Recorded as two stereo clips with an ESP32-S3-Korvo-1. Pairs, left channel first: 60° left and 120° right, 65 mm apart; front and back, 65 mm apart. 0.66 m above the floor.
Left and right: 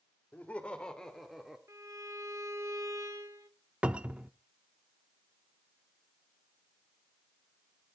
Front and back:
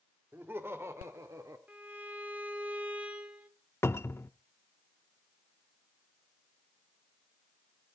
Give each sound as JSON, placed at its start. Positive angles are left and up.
{"t": 0.3, "sound": "laughter", "azimuth_deg": 125, "distance_m": 1.9}
{"t": 1.7, "sound": "a violin", "azimuth_deg": -115, "distance_m": 1.6}
{"t": 3.8, "sound": "a cupboard door", "azimuth_deg": -50, "distance_m": 0.6}